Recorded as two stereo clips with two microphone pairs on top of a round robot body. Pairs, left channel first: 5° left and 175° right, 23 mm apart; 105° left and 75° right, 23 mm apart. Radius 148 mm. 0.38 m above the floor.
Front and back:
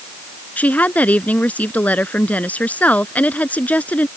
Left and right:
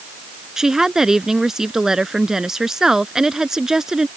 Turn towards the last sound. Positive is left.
turn(degrees=-5)